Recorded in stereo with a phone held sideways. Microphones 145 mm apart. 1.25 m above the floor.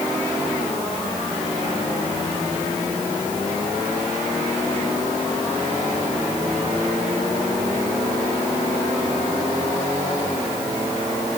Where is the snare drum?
No snare drum in this recording.